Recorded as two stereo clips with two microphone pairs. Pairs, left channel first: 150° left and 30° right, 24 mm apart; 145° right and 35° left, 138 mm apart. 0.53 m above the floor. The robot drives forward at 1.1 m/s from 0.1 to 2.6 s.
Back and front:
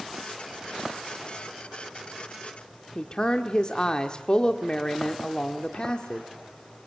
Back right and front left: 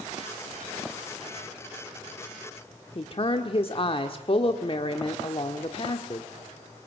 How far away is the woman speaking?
About 1.3 m.